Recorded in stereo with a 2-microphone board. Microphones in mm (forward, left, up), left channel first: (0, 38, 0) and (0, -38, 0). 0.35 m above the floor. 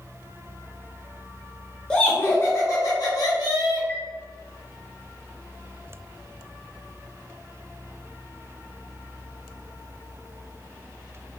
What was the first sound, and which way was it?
Laughter, 10° left (ahead or behind).